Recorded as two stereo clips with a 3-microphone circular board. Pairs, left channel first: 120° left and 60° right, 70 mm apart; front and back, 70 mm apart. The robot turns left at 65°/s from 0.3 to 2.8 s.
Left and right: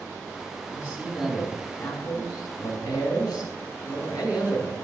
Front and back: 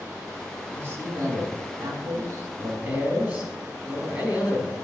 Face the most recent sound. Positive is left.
turn(degrees=115)